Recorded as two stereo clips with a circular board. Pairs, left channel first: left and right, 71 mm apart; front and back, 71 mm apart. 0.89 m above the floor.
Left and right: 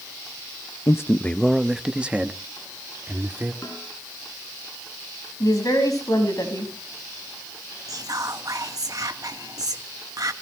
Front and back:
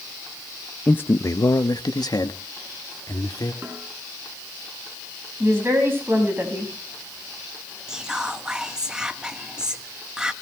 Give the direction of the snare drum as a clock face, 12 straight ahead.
8 o'clock.